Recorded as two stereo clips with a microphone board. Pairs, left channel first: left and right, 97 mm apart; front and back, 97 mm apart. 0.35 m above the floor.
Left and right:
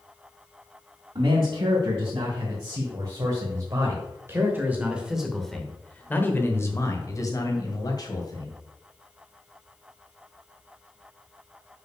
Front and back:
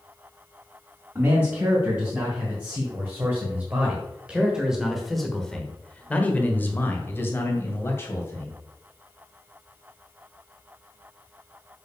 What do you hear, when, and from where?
1.1 s a man speaking: 120° right, 3 m; by 8.5 s 60° left, 2.5 m